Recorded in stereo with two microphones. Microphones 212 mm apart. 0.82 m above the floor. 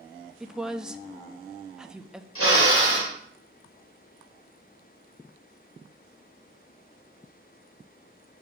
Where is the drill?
75° left (ahead or behind), 3 m.